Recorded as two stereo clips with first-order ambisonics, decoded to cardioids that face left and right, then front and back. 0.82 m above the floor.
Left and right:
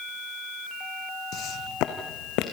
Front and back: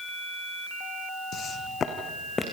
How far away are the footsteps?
About 1.8 m.